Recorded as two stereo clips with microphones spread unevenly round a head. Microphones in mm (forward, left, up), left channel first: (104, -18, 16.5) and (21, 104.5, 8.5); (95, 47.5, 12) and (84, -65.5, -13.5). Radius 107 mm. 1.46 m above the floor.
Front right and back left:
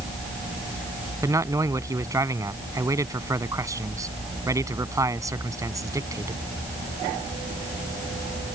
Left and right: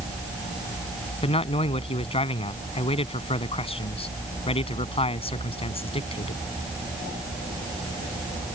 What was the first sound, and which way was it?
A man speaking, 55° left.